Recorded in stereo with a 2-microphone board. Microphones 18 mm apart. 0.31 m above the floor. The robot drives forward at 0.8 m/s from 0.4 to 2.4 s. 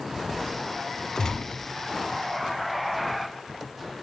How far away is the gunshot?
About 0.9 m.